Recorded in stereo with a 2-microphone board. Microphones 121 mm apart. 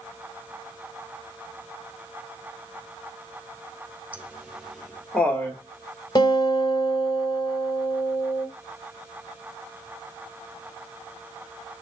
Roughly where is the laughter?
Centre.